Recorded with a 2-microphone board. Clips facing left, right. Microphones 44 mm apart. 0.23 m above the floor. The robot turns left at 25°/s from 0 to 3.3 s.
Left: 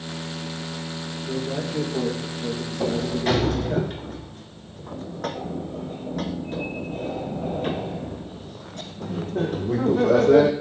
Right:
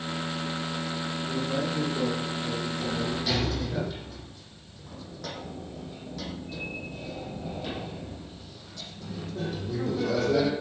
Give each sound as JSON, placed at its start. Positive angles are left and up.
{"t": 1.3, "sound": "a man speaking", "azimuth_deg": 130, "distance_m": 8.0}
{"t": 2.8, "sound": "a sliding door", "side_deg": 60, "distance_m": 1.6}